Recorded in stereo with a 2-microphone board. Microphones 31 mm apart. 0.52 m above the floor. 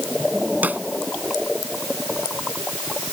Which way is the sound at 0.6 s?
65° right (ahead or behind).